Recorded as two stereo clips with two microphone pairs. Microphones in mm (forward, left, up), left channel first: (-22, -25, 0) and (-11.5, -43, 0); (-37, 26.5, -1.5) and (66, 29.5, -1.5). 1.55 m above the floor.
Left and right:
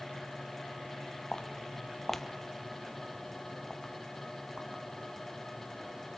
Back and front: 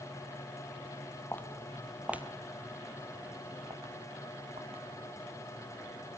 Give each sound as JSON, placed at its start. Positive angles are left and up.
{"t": 1.3, "sound": "footsteps", "azimuth_deg": 125, "distance_m": 1.8}